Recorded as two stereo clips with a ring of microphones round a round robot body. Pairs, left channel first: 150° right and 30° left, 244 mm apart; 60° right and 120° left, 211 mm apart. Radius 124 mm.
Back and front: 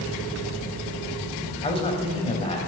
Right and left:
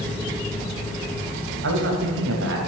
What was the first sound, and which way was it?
A man speaking, 145° left.